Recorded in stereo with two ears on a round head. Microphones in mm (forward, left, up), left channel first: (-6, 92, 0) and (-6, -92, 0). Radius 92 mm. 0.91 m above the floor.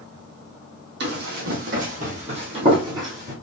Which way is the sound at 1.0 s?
55° right (ahead or behind).